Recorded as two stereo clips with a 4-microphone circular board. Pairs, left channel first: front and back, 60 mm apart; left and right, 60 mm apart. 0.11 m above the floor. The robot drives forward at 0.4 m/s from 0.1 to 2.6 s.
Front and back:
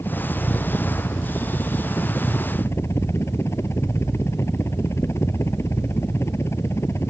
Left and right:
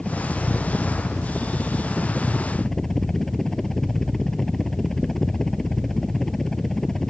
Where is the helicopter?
10° left.